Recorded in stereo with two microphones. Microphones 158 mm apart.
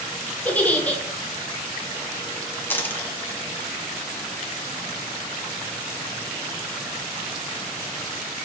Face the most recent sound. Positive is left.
turn(degrees=10)  # may be behind; listen again after turning